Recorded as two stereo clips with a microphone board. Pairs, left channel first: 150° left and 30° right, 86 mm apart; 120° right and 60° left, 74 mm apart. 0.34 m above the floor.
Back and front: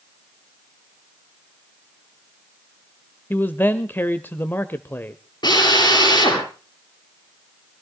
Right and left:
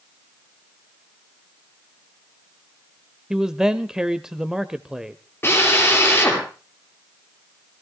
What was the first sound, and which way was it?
A man speaking, 130° left.